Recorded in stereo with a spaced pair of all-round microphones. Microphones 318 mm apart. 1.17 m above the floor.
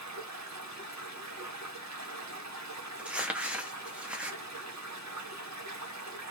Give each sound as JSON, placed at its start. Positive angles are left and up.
{"t": 0.0, "sound": "running water", "side_deg": -60, "distance_m": 0.8}
{"t": 3.0, "sound": "crumpling", "side_deg": -5, "distance_m": 0.6}